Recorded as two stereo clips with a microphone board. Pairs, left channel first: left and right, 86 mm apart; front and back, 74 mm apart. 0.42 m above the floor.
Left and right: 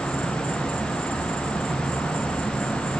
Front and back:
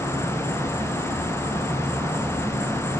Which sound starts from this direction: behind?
An insect, at 0.0 s.